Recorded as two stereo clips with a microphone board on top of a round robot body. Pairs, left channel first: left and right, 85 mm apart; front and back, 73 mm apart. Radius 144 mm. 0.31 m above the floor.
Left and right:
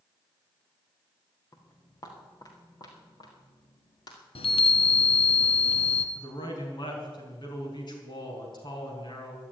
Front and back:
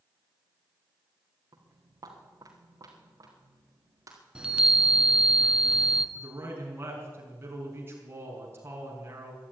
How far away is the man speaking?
About 5 m.